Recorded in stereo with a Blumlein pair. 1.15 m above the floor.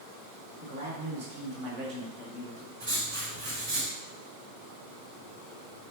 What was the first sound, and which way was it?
A man speaking, 65° right.